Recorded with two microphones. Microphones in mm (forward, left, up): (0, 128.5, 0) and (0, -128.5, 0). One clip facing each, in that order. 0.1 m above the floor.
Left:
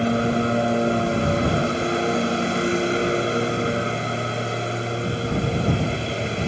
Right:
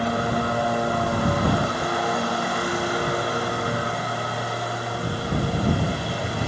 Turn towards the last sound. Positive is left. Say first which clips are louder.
# left 4 dB
turn(degrees=25)  # may be behind; listen again after turning